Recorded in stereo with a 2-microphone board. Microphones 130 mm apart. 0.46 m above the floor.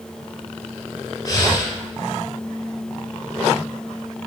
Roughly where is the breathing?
Left.